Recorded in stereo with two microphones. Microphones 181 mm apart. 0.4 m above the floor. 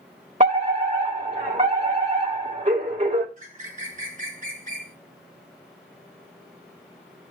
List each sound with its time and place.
0.4 s a fire alarm: 45° right (ahead or behind), 2.5 m
3.4 s a bird: 45° right (ahead or behind), 1.8 m